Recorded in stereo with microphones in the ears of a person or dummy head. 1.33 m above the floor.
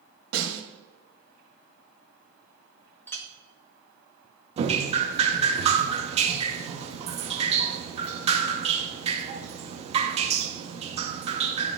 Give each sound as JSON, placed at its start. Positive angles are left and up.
{"t": 0.3, "sound": "a snare drum", "side_deg": -85, "distance_m": 1.5}
{"t": 3.1, "sound": "a clink", "side_deg": 10, "distance_m": 0.9}
{"t": 4.6, "sound": "dripping", "side_deg": -35, "distance_m": 0.7}